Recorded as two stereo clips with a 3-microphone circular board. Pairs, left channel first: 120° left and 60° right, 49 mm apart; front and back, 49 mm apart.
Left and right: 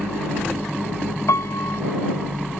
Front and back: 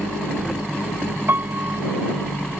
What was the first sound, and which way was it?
A piano, 135° left.